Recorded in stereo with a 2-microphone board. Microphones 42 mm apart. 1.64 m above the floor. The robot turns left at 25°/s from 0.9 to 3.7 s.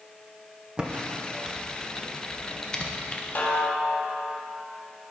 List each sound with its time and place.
0.8 s typing on a keyboard: 25° right (ahead or behind), 0.9 m; by 3.2 s 30° left (ahead or behind), 0.9 m
3.4 s a snare drum: 45° left (ahead or behind), 1.5 m; by 4.1 s 50° left (ahead or behind), 1.5 m